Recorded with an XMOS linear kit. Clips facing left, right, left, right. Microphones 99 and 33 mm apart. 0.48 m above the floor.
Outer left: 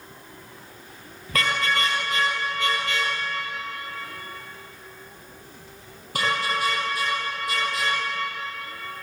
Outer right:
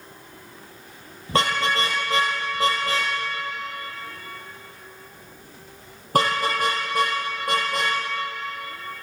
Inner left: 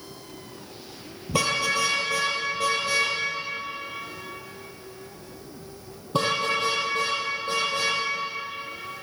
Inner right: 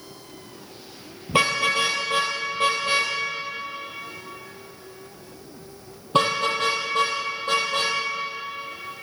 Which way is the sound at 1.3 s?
30° right (ahead or behind).